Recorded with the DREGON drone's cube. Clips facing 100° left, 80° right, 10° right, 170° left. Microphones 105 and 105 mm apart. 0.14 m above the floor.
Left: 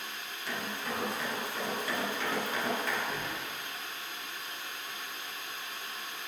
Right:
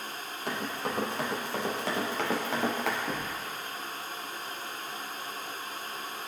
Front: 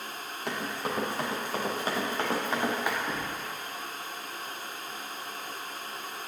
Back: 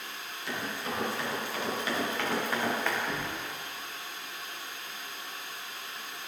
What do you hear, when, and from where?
0.5 s running footsteps: 45° right, 3.5 m; by 3.0 s 85° right, 2.5 m
3.1 s knocking: 90° right, 3 m